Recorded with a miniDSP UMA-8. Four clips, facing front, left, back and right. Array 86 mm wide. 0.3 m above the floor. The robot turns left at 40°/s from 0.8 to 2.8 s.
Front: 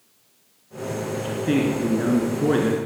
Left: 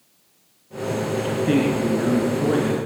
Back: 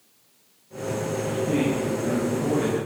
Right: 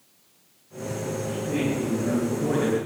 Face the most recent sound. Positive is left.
turn(degrees=0)